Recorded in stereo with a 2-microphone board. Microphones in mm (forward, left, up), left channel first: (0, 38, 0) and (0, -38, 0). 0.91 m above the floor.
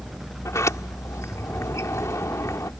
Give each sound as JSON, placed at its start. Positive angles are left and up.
{"t": 0.5, "sound": "a sliding door", "side_deg": 45}